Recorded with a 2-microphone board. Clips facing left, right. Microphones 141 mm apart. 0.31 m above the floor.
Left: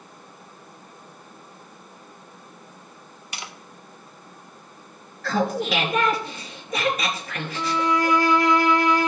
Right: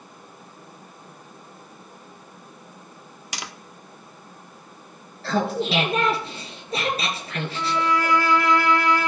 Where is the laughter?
30° right (ahead or behind), 4 m.